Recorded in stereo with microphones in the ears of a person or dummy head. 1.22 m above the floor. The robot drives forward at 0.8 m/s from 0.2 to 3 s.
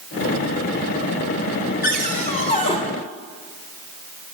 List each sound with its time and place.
1.8 s a cupboard door: 50° left (ahead or behind), 0.8 m; by 2.8 s 25° left (ahead or behind), 1.3 m